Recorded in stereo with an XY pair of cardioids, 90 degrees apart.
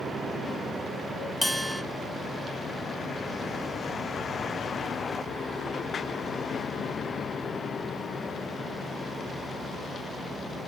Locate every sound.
1.4 s a bell: 10° left, 0.6 m